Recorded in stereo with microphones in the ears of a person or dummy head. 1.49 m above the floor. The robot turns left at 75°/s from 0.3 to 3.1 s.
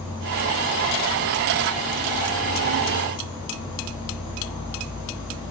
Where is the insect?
70° right, 1.4 m; by 5.5 s 80° left, 1.4 m.